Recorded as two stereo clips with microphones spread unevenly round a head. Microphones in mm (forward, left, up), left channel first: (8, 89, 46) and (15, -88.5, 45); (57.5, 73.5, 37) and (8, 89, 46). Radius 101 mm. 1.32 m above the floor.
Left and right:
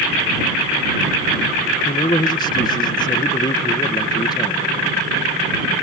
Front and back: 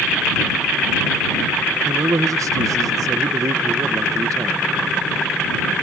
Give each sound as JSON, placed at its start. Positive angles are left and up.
{"t": 1.9, "sound": "a man speaking", "azimuth_deg": 160}